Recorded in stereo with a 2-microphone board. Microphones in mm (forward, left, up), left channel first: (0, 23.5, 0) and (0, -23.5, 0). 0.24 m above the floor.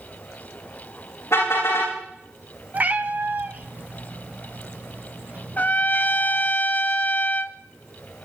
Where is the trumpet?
40° left (ahead or behind), 0.7 m.